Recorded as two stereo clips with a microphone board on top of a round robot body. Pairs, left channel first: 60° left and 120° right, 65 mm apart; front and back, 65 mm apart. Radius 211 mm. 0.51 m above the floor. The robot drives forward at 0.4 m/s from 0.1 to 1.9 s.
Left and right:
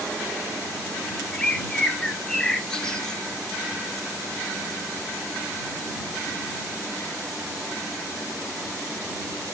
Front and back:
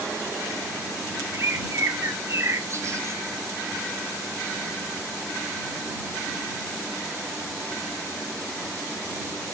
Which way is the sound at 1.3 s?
135° left.